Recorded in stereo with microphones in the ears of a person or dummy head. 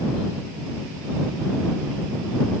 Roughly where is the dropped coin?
No dropped coin in this recording.